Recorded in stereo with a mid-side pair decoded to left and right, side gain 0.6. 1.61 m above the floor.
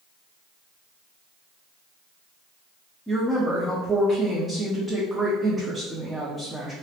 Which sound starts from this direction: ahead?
A woman speaking, at 3.1 s.